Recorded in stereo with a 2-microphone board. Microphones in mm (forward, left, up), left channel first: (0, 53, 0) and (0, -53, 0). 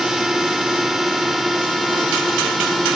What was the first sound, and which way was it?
A drone, 5° right (ahead or behind).